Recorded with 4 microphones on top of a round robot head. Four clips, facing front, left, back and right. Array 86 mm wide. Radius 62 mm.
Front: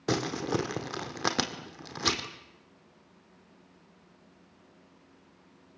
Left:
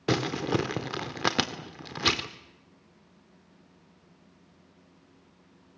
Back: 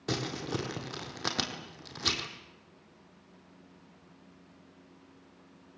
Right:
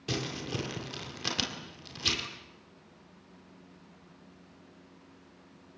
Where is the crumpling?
65° left, 1.7 m.